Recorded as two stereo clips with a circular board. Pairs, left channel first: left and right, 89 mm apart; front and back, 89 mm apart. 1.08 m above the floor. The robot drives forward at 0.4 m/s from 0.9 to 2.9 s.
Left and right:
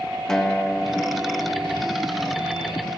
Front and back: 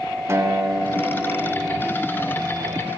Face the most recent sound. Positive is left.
turn(degrees=175)